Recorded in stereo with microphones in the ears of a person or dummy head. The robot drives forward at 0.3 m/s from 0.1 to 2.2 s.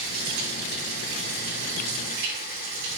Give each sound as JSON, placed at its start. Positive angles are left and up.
{"t": 0.0, "sound": "running water", "side_deg": -65, "distance_m": 3.5}